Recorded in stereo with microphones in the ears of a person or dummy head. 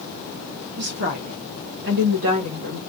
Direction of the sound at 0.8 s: 50° right (ahead or behind).